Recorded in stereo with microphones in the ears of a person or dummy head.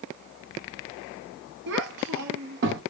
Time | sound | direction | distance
1.7 | a child speaking | 55° right (ahead or behind) | 0.6 m